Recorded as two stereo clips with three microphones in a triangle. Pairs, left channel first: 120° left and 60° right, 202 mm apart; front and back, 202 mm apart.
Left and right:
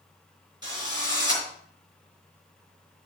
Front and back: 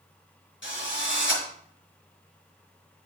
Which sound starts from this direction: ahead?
A drill, at 0.6 s.